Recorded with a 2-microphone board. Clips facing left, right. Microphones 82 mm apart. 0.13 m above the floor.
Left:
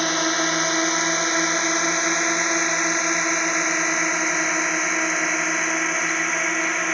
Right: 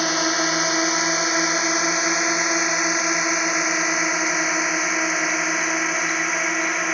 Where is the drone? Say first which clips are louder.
Even; centre (ahead or behind); by 7.0 s 5° right (ahead or behind).